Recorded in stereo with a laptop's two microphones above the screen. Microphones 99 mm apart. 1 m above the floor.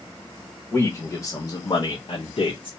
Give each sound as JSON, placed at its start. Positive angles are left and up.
{"t": 0.7, "sound": "a man speaking", "side_deg": 20, "distance_m": 1.5}